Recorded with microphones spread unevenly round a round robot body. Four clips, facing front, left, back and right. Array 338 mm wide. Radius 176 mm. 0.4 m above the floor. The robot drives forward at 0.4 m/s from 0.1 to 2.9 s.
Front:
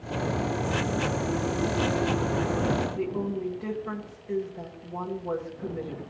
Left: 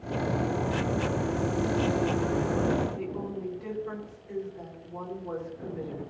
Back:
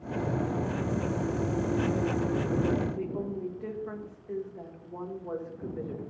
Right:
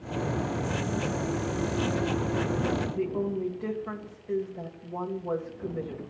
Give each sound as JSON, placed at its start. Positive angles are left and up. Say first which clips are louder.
{"t": 3.0, "sound": "a woman speaking", "louder": "right 5 dB, front 4 dB", "azimuth_deg": -65, "distance_m": 2.0}